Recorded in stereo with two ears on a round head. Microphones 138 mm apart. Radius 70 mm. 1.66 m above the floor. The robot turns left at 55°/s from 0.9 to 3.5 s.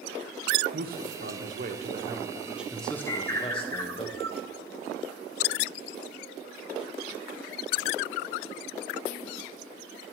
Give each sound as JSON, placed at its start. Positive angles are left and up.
{"t": 0.7, "sound": "a man speaking", "azimuth_deg": -80, "distance_m": 1.2}
{"t": 3.1, "sound": "a bird", "side_deg": 15, "distance_m": 0.9}